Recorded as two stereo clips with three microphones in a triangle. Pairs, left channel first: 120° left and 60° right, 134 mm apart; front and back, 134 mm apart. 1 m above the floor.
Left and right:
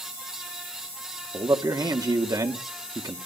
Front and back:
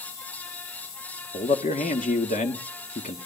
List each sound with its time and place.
1.3 s a man speaking: straight ahead, 2.0 m